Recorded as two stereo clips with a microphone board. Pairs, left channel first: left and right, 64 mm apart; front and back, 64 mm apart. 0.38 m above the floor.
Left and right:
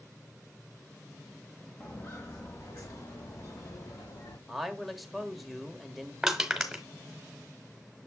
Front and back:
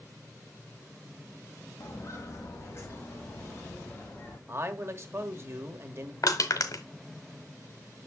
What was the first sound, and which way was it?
Footsteps, 35° left.